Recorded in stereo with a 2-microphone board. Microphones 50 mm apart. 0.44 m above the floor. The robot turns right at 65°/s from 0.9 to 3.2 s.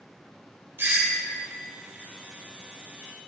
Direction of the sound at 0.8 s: 50° right (ahead or behind).